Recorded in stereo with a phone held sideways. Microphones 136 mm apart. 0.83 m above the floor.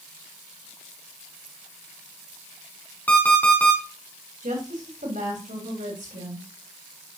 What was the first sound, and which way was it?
An alarm clock, 10° left (ahead or behind).